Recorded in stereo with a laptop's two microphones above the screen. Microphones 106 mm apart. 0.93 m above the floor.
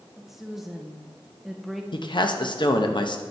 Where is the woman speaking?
Centre (ahead or behind), 0.8 m.